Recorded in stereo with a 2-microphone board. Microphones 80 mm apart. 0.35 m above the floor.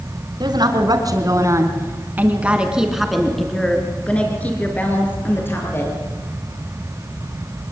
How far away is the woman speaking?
About 4 m.